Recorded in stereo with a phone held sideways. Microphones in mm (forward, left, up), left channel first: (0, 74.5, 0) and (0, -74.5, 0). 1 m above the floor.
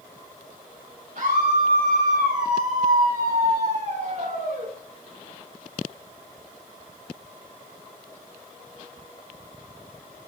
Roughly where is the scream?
Right.